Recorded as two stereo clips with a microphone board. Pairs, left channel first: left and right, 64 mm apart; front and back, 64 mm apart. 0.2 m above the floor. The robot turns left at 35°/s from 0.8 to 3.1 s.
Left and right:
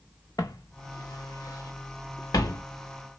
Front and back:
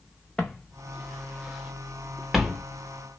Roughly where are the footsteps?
Left.